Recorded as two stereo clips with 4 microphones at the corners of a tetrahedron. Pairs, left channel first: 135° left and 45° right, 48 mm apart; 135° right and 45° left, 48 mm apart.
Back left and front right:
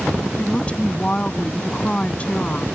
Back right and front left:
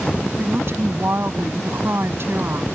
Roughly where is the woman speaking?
Left.